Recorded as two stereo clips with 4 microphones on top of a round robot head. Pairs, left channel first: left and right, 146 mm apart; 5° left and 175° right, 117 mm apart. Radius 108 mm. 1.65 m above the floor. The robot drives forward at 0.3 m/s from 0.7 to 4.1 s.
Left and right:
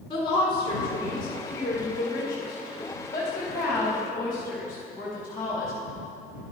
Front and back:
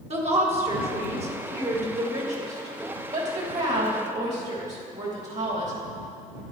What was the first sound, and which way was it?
A woman speaking, 155° left.